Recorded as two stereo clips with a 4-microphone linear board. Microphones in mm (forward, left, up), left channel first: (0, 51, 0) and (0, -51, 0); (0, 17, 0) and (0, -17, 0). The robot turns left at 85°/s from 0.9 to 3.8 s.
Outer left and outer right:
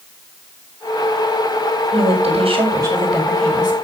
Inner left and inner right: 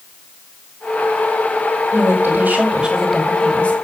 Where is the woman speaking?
75° right, 6 m; by 3.8 s 130° left, 6 m.